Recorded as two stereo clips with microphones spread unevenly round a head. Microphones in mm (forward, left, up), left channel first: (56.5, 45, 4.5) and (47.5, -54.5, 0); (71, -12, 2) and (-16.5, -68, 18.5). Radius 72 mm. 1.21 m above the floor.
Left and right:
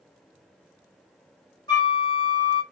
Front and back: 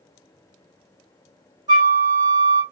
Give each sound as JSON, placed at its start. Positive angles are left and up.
{"t": 1.7, "sound": "a flute", "azimuth_deg": 145, "distance_m": 1.1}